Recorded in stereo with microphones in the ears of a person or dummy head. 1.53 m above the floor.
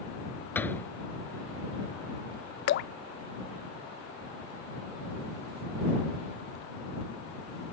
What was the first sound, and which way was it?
A door slam, 10° left (ahead or behind).